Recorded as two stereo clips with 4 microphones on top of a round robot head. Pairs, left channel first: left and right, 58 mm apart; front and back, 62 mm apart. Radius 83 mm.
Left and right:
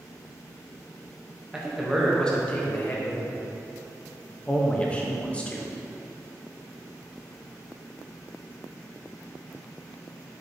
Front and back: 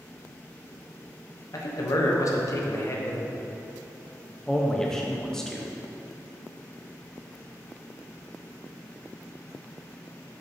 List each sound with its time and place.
1.5 s a man speaking: 10° right, 1.2 m; by 3.3 s 50° left, 1.4 m
4.5 s a man speaking: 65° left, 0.9 m